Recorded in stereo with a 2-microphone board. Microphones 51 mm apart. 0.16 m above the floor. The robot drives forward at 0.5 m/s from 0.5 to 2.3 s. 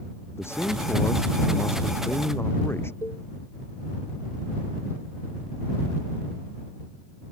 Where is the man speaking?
55° left (ahead or behind).